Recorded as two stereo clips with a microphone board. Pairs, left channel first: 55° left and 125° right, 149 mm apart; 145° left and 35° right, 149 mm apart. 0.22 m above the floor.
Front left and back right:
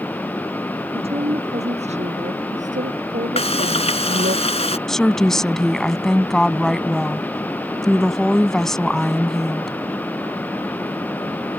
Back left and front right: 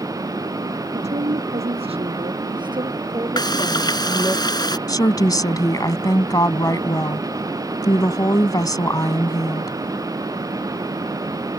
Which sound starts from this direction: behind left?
A woman speaking, at 4.9 s.